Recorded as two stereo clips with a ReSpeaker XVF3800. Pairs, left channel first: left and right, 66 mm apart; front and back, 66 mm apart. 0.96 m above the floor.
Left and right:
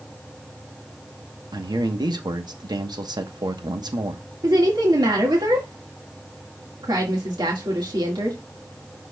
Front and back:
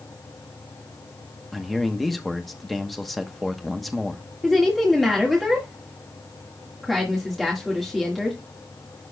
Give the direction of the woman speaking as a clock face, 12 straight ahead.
3 o'clock.